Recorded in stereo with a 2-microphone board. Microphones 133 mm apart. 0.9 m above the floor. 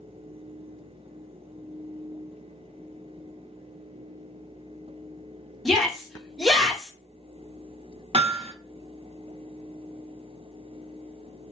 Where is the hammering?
45° right (ahead or behind), 0.6 m.